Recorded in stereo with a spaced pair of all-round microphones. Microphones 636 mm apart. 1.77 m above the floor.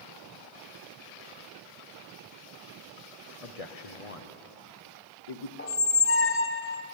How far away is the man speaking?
About 1.2 m.